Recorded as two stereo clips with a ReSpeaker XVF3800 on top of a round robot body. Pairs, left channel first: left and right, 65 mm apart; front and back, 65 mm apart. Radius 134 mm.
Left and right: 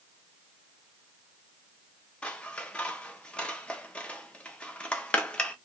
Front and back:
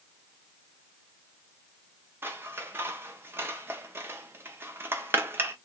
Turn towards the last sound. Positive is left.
turn(degrees=155)